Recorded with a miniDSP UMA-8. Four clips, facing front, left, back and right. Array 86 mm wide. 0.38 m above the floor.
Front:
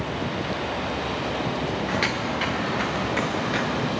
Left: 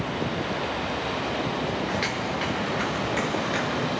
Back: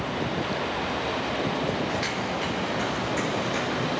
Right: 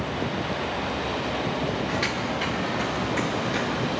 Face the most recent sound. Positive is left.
turn(degrees=40)